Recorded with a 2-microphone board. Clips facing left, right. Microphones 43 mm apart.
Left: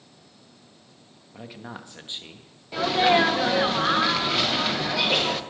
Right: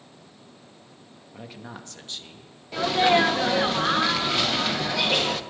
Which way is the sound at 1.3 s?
Centre (ahead or behind).